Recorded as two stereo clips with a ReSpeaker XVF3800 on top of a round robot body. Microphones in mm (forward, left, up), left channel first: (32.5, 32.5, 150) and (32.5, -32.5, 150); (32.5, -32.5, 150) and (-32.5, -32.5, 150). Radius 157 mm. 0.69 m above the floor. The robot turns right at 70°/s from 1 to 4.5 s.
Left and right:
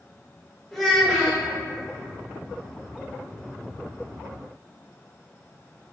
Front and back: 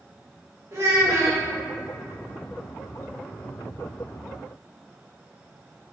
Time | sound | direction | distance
0.7 | a child speaking | 170° left | 0.7 m